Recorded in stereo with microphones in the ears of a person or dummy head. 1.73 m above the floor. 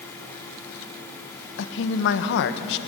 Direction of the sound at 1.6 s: 65° left (ahead or behind).